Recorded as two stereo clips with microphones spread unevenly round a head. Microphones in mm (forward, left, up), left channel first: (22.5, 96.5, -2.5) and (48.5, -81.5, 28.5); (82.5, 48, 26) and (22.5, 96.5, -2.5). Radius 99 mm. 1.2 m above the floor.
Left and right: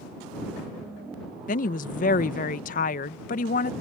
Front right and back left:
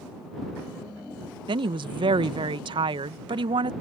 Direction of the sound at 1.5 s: 150° left.